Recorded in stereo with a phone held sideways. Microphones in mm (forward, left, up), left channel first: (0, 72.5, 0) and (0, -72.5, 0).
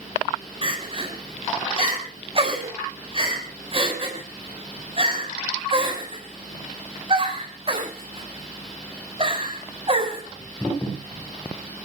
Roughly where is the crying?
Right.